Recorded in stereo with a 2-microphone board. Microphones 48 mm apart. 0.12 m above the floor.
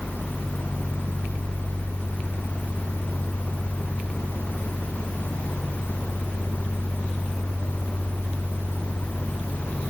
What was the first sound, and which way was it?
Only background noise.